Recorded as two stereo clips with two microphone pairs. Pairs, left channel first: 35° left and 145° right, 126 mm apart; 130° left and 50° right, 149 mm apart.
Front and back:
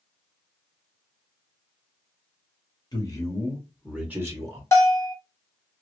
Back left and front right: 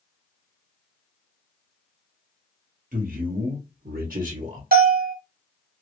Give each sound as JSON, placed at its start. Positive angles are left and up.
{"t": 2.9, "sound": "a man speaking", "azimuth_deg": -25, "distance_m": 1.1}
{"t": 4.7, "sound": "a bell", "azimuth_deg": -35, "distance_m": 0.9}